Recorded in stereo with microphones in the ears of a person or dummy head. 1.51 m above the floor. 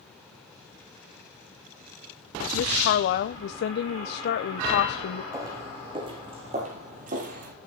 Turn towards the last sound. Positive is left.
turn(degrees=-45)  # may be behind; listen again after turning